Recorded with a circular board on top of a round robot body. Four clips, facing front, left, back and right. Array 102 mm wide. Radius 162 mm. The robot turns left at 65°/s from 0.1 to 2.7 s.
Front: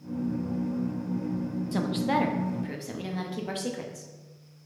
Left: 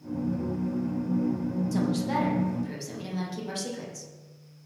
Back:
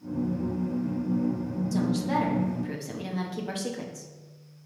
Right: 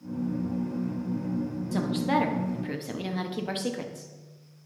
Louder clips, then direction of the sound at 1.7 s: Right 3 dB, even; 20° right.